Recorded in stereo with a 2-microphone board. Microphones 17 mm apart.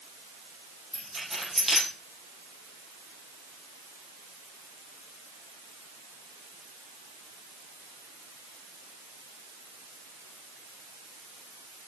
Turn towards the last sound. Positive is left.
turn(degrees=-20)  # may be behind; listen again after turning